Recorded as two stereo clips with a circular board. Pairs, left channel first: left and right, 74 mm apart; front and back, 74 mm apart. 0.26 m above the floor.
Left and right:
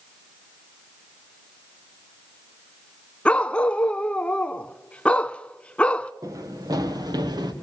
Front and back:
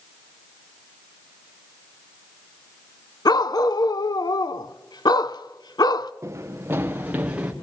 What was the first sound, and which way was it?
A dog barking, 20° left.